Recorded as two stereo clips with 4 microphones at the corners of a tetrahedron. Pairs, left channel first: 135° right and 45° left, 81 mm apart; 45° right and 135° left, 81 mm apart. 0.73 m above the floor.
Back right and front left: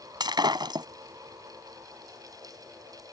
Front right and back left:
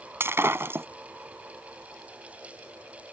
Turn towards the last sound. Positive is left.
turn(degrees=75)